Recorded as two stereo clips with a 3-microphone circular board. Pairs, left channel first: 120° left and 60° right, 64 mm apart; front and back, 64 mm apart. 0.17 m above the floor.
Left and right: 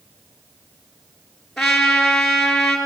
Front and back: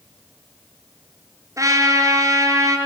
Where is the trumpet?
155° right, 3 m.